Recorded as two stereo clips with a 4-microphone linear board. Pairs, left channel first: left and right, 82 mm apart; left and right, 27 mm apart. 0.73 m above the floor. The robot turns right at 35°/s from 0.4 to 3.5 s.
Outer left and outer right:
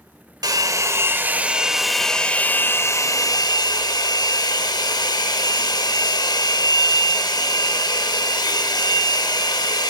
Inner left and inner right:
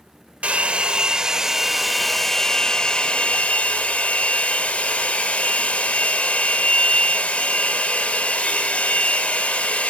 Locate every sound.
0.4 s a hair dryer: 50° right, 1.0 m; by 9.9 s 55° left, 1.0 m